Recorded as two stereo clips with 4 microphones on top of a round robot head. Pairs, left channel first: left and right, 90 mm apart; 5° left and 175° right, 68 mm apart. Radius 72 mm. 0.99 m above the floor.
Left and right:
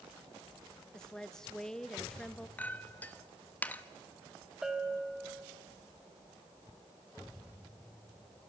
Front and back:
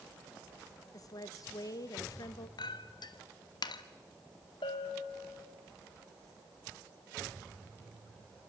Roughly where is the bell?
Ahead.